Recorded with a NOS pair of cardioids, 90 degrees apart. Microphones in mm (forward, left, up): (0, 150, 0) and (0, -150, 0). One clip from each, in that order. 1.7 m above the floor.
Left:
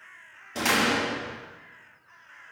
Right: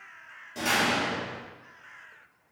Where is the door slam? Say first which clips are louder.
Left 2 dB; 65° left, 2.5 m.